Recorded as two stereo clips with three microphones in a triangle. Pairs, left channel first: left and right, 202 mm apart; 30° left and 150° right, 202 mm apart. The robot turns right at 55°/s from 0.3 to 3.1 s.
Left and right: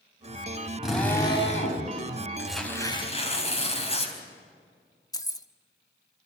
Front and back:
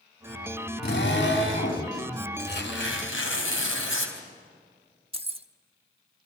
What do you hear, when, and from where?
0.8 s a drill: 5° right, 4.5 m; by 1.8 s 50° left, 4.5 m
2.4 s tearing paper: 5° right, 4 m; by 4.2 s 30° left, 4 m
5.1 s keys jangling: 160° left, 0.9 m